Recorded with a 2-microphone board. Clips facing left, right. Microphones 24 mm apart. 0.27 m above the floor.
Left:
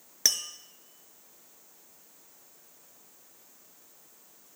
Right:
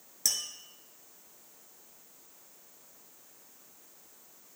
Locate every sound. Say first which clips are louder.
0.2 s tapping: left 5 dB; 35° left (ahead or behind), 0.6 m